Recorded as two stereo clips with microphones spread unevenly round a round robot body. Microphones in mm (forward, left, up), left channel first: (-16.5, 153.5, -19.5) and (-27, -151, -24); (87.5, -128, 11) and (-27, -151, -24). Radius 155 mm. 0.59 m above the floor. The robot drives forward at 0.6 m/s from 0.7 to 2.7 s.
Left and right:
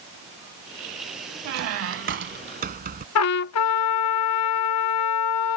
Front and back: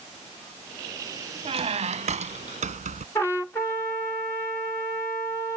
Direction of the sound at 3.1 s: 100° left.